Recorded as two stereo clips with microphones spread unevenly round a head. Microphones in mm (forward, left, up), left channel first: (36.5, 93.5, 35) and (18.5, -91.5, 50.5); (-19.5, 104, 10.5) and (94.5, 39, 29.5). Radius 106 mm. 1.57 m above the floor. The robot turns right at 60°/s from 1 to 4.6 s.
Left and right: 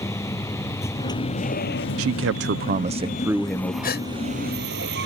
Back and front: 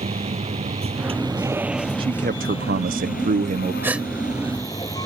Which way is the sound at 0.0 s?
10° left.